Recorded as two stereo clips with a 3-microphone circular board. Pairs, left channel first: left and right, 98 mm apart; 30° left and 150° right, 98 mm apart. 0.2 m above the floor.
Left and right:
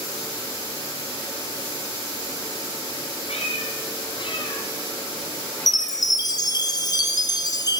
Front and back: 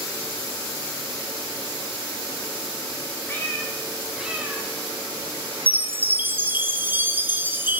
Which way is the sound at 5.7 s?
140° left.